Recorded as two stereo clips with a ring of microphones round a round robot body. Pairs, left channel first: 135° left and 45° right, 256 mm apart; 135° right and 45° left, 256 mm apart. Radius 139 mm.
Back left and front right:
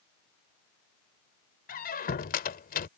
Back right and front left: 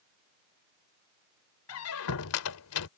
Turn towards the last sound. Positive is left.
turn(degrees=-165)